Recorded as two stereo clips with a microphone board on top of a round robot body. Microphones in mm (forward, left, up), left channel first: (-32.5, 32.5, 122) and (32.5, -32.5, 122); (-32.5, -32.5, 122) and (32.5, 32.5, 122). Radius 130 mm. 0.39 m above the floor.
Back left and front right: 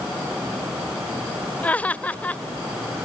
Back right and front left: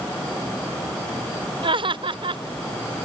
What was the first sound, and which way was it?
Laughter, 60° left.